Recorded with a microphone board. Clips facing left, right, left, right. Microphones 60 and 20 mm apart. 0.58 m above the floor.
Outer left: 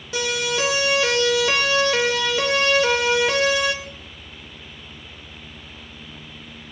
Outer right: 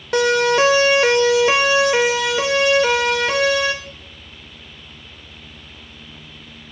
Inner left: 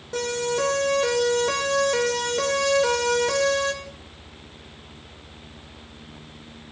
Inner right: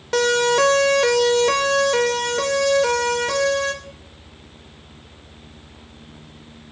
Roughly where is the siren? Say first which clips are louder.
Outer right 9 dB, inner right 8 dB; right.